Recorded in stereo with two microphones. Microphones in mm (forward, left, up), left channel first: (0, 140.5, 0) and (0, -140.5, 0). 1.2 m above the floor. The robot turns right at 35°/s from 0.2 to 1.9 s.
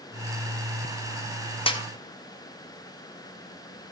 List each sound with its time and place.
1.7 s a snare drum: 20° left (ahead or behind), 0.8 m; by 1.8 s 15° left (ahead or behind), 0.8 m